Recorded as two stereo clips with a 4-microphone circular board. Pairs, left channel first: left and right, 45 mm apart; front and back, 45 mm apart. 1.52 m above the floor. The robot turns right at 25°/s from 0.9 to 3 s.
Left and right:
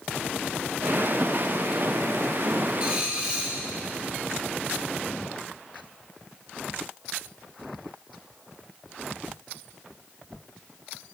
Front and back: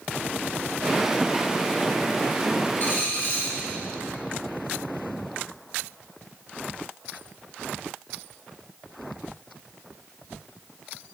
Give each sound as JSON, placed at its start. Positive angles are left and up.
{"t": 2.8, "sound": "a dropped coin", "azimuth_deg": -35, "distance_m": 1.9}